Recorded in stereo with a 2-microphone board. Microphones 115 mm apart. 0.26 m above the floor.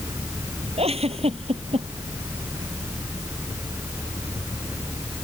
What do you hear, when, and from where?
0.8 s a giggle: 55° right (ahead or behind)